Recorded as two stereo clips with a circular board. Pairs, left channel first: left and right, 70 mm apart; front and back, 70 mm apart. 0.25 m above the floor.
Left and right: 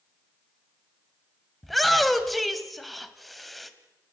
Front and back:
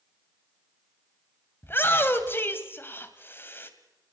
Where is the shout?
Straight ahead, 1.7 m.